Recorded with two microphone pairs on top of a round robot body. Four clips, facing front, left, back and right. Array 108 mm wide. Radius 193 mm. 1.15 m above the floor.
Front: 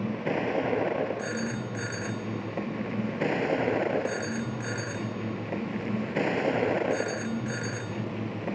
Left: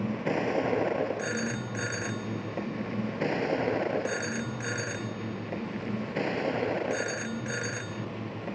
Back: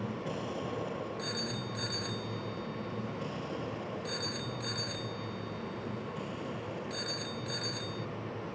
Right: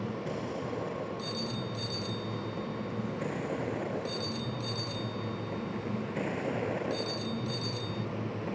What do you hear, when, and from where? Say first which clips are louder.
0.0 s a vehicle: left 6 dB, front 8 dB; 45° left; by 8.6 s 10° left
1.2 s a phone ringing: left 4 dB, front 6 dB; 60° left